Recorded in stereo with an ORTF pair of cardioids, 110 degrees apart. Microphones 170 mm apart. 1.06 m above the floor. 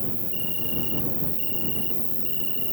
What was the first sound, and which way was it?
An insect, straight ahead.